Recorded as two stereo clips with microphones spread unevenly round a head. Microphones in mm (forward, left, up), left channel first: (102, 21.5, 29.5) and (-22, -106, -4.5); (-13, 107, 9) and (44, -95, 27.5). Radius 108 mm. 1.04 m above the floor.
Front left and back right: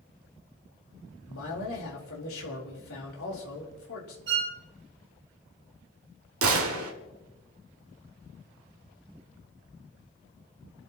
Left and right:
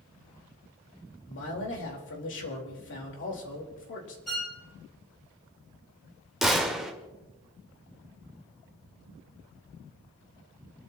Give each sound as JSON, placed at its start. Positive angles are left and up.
{"t": 1.3, "sound": "a man speaking", "azimuth_deg": 75, "distance_m": 4.5}
{"t": 4.3, "sound": "a violin", "azimuth_deg": -165, "distance_m": 4.0}
{"t": 6.4, "sound": "a gunshot", "azimuth_deg": -160, "distance_m": 1.7}